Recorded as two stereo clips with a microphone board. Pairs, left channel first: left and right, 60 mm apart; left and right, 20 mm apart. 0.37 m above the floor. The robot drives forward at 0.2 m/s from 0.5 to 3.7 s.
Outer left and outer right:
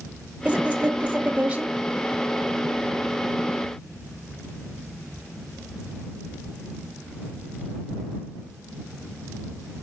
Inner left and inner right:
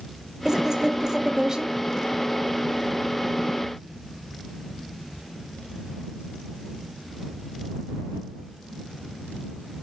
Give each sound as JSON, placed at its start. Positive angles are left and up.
{"t": 0.5, "sound": "a woman speaking", "side_deg": -25, "distance_m": 1.0}